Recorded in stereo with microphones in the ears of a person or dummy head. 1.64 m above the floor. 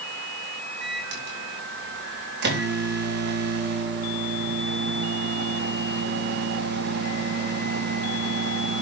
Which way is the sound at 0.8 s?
65° right (ahead or behind).